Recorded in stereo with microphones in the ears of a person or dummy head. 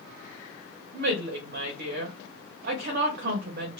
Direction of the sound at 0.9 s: 50° right (ahead or behind).